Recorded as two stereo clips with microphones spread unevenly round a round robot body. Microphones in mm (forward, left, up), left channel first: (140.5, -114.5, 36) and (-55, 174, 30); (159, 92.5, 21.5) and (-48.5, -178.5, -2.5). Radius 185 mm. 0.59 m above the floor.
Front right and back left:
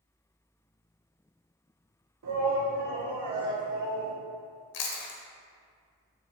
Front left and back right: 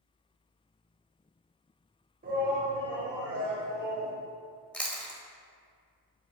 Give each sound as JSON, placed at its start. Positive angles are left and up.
{"t": 2.2, "sound": "a shout", "azimuth_deg": 170, "distance_m": 2.5}
{"t": 4.7, "sound": "chewing", "azimuth_deg": -35, "distance_m": 1.3}